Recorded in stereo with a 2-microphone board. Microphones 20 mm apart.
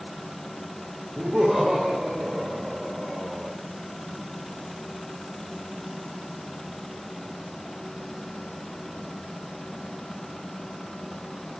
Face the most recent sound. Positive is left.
turn(degrees=-10)  # may be behind; listen again after turning